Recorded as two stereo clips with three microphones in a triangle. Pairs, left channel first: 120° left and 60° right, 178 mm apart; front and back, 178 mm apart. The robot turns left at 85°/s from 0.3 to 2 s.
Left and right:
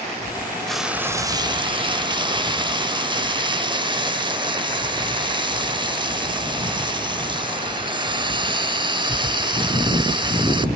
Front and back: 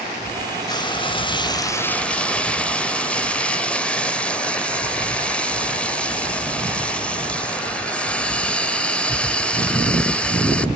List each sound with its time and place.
0.7 s frying: 35° left, 0.7 m; by 10.7 s 75° right, 0.7 m